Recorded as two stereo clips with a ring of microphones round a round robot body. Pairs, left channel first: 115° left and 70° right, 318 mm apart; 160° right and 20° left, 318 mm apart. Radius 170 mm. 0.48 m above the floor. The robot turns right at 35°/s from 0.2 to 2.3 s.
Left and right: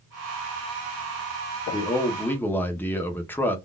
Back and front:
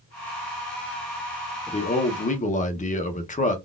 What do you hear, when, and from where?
1.7 s a man speaking: 165° left, 0.7 m; by 3.6 s 175° right, 0.7 m